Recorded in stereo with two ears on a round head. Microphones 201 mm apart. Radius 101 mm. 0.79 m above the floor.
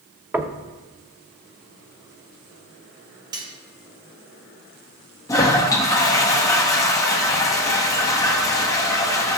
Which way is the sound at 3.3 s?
20° right (ahead or behind).